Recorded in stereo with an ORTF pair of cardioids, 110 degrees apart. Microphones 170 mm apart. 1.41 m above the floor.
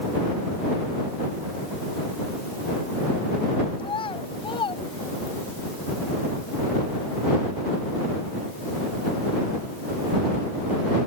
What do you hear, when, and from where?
3.8 s a child speaking: 30° left